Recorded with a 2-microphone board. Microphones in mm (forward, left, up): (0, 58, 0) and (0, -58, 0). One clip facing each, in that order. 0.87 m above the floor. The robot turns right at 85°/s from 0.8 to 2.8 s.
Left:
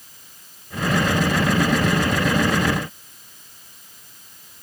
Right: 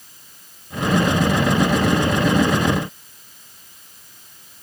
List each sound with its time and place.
Only background noise.